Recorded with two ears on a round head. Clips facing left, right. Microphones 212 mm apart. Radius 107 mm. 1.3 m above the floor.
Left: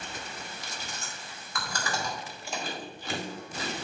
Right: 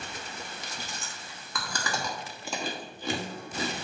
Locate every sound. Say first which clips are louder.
0.6 s chewing: even; 65° right (ahead or behind), 1.1 m